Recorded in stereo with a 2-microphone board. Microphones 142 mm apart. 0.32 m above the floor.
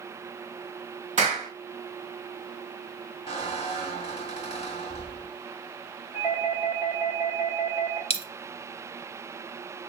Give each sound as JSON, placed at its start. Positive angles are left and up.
{"t": 1.2, "sound": "a clap", "side_deg": -55, "distance_m": 1.6}
{"t": 3.3, "sound": "a squeak", "side_deg": 45, "distance_m": 0.9}
{"t": 6.1, "sound": "a doorbell", "side_deg": -10, "distance_m": 1.9}
{"t": 8.1, "sound": "a dropped coin", "side_deg": 45, "distance_m": 0.5}